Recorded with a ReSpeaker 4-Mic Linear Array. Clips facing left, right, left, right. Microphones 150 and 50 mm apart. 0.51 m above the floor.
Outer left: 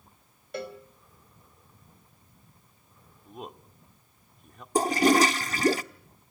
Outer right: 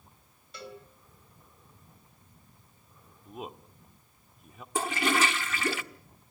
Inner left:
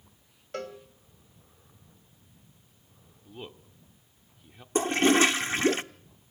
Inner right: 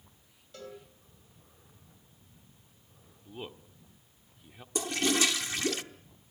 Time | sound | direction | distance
0.5 | a cowbell | 60° left (ahead or behind) | 3 m
3.2 | a man speaking | 5° right (ahead or behind) | 1.5 m
4.8 | a toilet flushing | 40° left (ahead or behind) | 0.9 m